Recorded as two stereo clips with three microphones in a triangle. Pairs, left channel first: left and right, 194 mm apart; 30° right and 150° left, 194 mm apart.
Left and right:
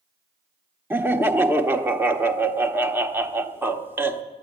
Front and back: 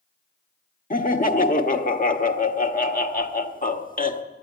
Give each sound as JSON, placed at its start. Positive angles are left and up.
{"t": 0.9, "sound": "laughter", "azimuth_deg": -15, "distance_m": 1.0}